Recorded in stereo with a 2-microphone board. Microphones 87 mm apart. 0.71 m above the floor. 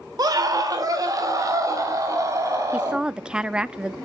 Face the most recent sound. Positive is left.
turn(degrees=-10)  # may be behind; listen again after turning